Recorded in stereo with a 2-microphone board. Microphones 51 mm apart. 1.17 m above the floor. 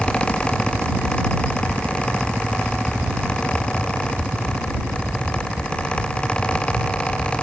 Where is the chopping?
I don't hear chopping.